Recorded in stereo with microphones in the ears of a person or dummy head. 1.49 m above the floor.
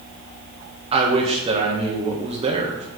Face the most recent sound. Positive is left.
turn(degrees=-30)  # may be behind; listen again after turning